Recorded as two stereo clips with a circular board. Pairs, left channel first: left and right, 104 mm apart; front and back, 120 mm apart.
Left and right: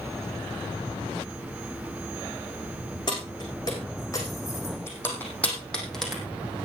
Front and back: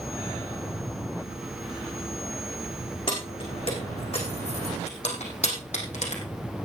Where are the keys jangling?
45° left, 6 m; by 6.2 s straight ahead, 4 m.